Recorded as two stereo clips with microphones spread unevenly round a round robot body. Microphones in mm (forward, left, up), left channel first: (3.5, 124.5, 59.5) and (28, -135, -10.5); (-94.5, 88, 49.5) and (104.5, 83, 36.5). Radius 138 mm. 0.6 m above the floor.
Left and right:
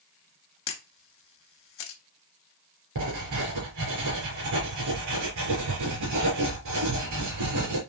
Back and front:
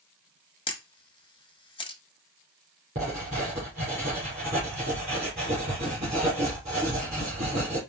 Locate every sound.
0.7 s a camera shutter: 115° left, 0.7 m
3.0 s writing: 70° right, 3 m